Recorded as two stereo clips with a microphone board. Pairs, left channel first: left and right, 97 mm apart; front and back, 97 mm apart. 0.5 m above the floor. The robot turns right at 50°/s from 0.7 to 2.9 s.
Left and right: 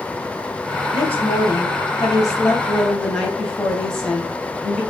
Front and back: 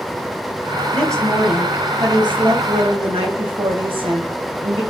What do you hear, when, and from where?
0.9 s a woman speaking: 75° left, 3.5 m; by 4.8 s 175° left, 3.5 m